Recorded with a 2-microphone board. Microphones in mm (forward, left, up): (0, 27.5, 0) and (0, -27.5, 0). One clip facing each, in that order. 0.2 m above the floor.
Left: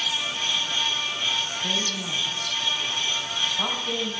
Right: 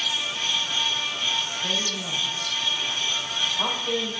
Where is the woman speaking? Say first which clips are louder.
Even; 20° right (ahead or behind), 4.5 m.